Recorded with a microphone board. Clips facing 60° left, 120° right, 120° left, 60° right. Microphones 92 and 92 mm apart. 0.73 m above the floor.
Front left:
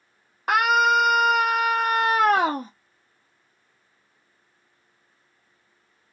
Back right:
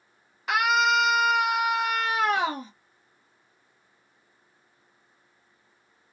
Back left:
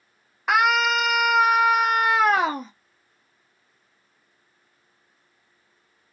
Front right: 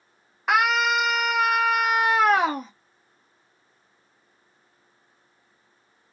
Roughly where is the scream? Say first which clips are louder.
Front left 3 dB, back left 1 dB; ahead left.